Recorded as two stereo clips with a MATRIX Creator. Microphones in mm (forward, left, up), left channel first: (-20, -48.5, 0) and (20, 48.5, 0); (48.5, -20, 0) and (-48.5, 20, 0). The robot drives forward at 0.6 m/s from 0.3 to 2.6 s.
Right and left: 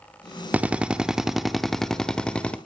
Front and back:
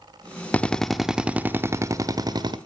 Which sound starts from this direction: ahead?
A drill, at 0.5 s.